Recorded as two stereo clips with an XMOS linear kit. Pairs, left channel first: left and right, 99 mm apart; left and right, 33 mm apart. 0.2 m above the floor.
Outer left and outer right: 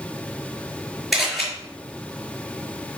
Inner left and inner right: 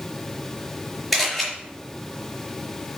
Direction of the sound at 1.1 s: Centre (ahead or behind).